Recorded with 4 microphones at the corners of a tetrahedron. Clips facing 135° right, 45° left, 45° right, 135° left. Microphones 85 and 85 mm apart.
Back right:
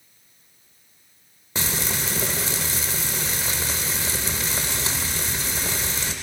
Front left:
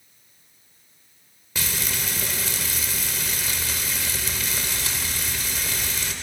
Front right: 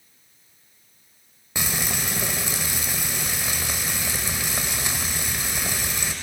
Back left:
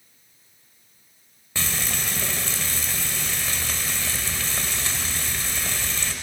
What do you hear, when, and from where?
1.6 s frying: 105° right, 1.0 m